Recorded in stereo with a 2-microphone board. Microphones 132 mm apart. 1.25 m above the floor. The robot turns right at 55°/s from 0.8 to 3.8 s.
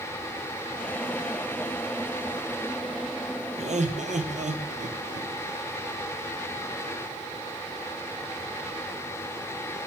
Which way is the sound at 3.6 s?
55° right (ahead or behind).